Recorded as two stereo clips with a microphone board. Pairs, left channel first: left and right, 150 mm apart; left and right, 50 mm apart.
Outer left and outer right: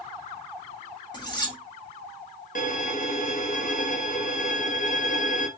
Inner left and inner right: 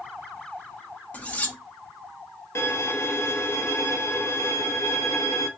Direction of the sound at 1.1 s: 30° left (ahead or behind).